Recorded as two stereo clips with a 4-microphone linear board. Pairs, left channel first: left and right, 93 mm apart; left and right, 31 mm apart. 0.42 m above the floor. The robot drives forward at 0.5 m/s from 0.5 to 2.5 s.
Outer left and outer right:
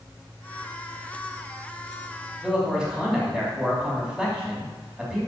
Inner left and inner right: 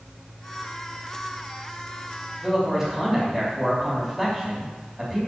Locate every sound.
2.4 s a man speaking: centre (ahead or behind), 3 m